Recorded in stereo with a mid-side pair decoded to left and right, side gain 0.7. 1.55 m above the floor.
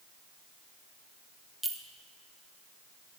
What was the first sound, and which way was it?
A clink, 10° right.